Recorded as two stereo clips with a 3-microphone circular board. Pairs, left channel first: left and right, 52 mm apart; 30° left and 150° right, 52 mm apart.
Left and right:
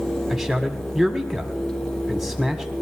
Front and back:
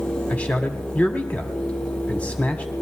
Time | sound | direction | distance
0.3 | a man speaking | 5° right | 1.7 m